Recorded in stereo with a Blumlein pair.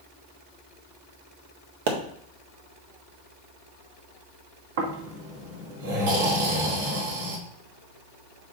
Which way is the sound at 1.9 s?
50° right.